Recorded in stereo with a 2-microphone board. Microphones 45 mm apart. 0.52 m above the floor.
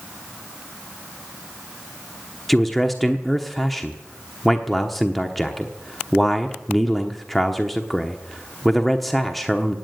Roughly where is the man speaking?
Centre.